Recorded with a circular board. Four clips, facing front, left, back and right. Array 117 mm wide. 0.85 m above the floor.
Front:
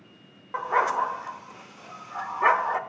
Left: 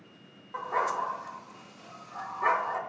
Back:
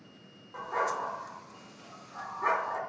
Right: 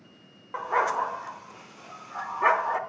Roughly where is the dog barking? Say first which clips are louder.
Right 4 dB, front 8 dB; ahead right.